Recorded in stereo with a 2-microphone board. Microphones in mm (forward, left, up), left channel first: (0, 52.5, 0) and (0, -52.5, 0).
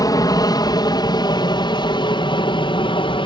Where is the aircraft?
40° left (ahead or behind); by 3.3 s 55° left (ahead or behind).